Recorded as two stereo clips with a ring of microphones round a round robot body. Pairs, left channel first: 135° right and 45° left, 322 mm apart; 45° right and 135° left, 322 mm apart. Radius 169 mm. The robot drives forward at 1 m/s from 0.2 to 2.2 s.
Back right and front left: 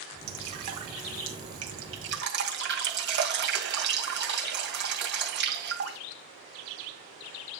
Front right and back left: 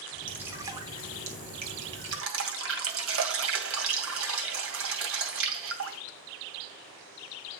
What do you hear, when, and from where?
0.3 s dripping: 50° left, 3 m; by 6.0 s 95° left, 2.5 m